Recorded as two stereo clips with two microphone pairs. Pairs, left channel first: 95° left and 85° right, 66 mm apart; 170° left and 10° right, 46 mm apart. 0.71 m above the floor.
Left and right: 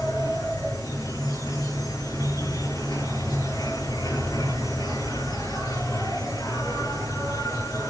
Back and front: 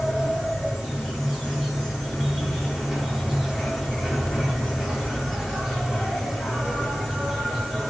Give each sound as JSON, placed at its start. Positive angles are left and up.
{"t": 0.0, "sound": "an insect", "azimuth_deg": 90, "distance_m": 7.5}